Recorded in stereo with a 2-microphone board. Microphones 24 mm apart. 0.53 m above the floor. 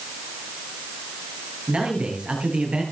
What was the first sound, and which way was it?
A man speaking, 45° right (ahead or behind).